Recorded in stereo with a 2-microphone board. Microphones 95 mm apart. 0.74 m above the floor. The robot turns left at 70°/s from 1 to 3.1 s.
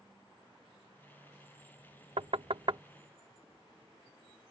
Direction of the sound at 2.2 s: 75° right (ahead or behind).